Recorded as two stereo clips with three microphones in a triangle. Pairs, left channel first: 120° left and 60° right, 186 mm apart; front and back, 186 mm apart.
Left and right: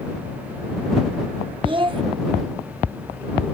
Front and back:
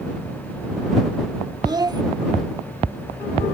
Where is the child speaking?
115° right.